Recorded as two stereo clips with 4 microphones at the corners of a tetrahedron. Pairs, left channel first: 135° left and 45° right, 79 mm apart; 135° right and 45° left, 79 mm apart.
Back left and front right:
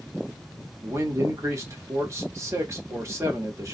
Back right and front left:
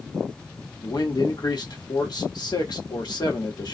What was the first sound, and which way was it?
A man speaking, 100° right.